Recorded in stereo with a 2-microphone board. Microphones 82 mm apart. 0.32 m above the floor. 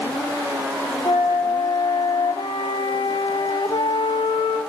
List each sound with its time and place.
1.1 s a flute: 80° left, 3 m